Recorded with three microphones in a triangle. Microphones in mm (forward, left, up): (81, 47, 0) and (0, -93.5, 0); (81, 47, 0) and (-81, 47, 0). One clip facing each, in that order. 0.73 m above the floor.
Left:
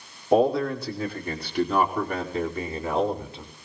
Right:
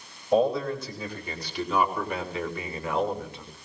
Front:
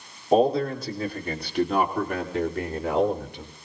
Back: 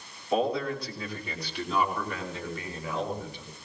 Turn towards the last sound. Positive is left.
turn(degrees=0)